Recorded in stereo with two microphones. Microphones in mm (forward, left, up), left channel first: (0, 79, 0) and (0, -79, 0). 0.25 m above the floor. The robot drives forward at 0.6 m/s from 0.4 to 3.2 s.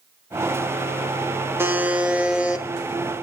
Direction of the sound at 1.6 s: 15° right (ahead or behind).